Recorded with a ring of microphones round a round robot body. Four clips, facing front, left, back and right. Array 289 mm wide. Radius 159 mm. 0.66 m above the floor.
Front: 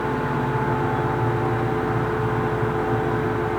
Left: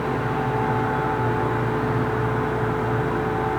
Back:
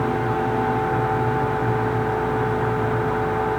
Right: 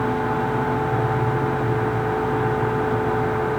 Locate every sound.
Only background noise.